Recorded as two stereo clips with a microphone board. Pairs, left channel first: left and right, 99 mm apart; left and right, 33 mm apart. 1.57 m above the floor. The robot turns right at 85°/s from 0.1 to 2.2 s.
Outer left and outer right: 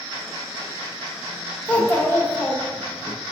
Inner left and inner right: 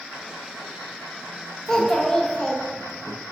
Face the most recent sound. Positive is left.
turn(degrees=25)  # may be behind; listen again after turning